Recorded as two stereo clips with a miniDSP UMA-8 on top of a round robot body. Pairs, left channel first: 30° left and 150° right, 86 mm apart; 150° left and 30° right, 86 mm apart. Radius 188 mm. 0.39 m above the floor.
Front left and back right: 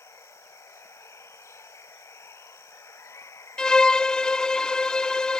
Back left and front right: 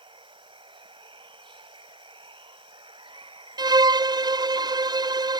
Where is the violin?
50° right.